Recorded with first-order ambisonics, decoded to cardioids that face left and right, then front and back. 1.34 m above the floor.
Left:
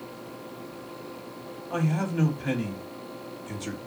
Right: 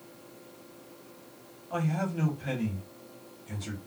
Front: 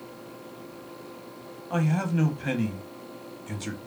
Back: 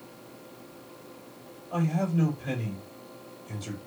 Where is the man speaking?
15° left, 1.0 m.